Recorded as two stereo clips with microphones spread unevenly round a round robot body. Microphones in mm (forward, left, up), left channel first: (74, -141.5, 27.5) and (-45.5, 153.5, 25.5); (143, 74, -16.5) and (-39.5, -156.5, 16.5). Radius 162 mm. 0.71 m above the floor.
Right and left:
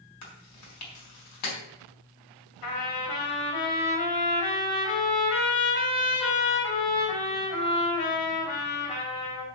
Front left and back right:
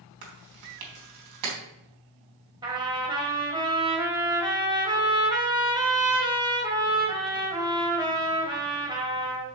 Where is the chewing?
110° right, 4 m.